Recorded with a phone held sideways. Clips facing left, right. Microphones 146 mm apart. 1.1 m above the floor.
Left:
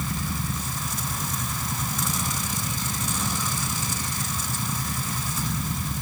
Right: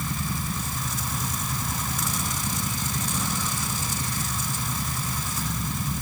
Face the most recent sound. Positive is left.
No sound to turn to.